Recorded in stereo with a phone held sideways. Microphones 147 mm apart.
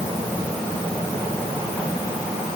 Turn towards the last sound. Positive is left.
No sound to turn to.